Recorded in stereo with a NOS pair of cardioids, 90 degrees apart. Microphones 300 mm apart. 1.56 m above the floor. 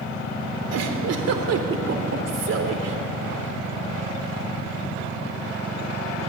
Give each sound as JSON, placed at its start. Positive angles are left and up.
{"t": 0.7, "sound": "a giggle", "azimuth_deg": -60, "distance_m": 3.0}